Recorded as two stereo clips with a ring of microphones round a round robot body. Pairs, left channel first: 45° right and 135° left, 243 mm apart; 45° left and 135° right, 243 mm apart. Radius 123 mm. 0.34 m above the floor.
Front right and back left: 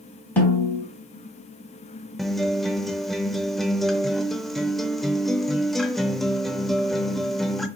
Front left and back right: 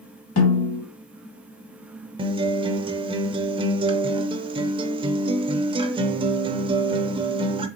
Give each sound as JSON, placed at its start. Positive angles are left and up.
{"t": 0.4, "sound": "a snare drum", "azimuth_deg": 40, "distance_m": 2.5}
{"t": 2.2, "sound": "a guitar", "azimuth_deg": -135, "distance_m": 0.5}